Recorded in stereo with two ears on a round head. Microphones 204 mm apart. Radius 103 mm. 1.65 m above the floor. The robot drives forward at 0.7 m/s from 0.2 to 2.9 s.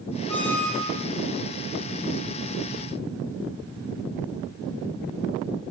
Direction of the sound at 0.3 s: 10° left (ahead or behind).